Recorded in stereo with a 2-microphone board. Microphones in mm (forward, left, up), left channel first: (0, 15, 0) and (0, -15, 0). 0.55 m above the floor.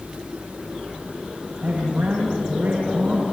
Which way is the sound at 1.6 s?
65° right (ahead or behind).